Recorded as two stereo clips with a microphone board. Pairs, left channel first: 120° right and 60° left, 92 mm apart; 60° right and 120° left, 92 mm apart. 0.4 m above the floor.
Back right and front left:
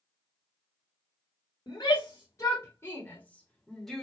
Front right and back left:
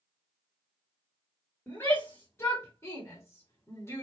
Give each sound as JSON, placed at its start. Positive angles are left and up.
{"t": 1.7, "sound": "a shout", "azimuth_deg": -110, "distance_m": 2.0}